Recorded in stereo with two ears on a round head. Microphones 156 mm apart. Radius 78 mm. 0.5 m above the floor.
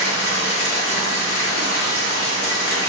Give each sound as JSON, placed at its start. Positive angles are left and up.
{"t": 0.0, "sound": "running water", "side_deg": 70, "distance_m": 1.8}